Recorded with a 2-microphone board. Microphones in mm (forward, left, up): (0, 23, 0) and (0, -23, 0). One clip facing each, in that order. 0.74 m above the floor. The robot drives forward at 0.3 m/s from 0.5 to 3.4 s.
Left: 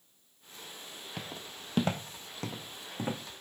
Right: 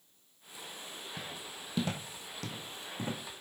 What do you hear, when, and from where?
1.2 s footsteps: 65° left (ahead or behind), 1.5 m; by 3.2 s 20° left (ahead or behind), 3 m